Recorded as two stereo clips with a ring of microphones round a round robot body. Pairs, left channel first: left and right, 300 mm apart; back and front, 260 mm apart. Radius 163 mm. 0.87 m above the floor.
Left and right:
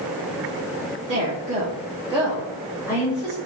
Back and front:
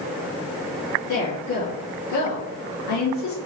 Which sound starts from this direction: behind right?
A woman speaking, at 1.1 s.